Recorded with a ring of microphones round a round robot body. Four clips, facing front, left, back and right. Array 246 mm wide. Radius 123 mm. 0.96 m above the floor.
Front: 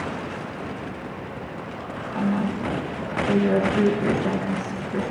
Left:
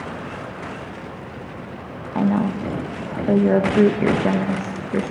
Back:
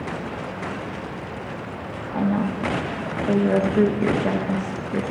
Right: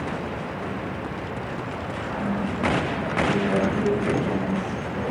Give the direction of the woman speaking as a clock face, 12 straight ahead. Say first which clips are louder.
Left 8 dB, back 2 dB; 8 o'clock.